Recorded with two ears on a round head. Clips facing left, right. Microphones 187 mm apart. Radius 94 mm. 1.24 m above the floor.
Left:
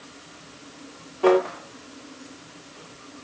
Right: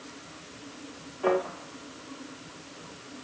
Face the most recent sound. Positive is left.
turn(degrees=60)  # may be behind; listen again after turning